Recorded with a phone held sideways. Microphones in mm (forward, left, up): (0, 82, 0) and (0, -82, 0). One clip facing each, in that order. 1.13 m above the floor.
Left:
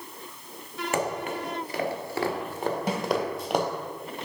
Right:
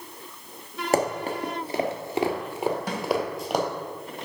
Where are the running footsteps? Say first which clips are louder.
Right 5 dB; 40° right (ahead or behind), 1.3 m; by 3.6 s 5° left (ahead or behind), 1.6 m.